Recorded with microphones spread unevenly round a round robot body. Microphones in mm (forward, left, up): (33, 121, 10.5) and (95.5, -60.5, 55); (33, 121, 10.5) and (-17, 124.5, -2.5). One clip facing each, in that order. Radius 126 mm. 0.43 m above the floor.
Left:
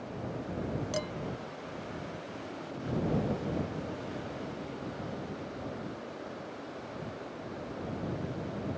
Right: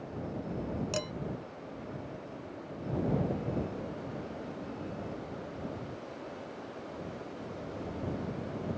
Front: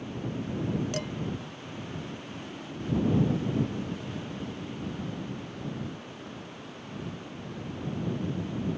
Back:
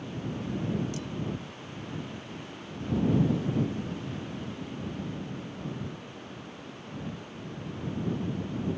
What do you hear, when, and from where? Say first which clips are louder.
0.9 s dishes clattering: left 1 dB, front 4 dB; 15° right